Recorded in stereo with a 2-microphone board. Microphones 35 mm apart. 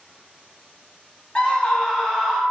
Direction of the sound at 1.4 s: 30° left (ahead or behind).